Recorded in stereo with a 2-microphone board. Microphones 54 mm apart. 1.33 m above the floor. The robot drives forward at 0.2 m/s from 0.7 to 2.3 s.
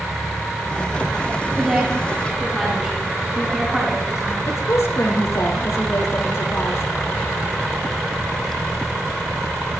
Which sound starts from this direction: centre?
A woman speaking, at 1.6 s.